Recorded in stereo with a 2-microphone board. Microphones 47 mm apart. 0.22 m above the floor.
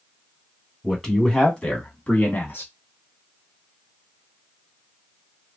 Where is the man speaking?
10° left (ahead or behind), 1.5 m; by 2.7 s 50° left (ahead or behind), 1.6 m.